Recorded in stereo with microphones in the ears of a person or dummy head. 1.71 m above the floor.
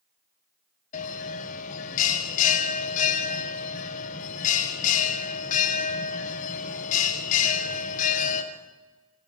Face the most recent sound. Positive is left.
turn(degrees=45)  # may be behind; listen again after turning